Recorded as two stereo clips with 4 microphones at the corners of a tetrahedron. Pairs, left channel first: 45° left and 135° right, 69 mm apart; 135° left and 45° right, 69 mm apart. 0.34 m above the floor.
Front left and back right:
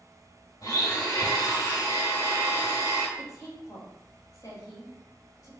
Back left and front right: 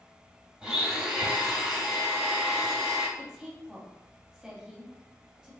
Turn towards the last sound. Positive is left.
turn(degrees=35)